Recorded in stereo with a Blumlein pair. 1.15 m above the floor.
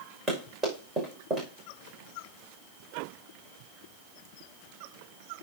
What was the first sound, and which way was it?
Running footsteps, 15° right.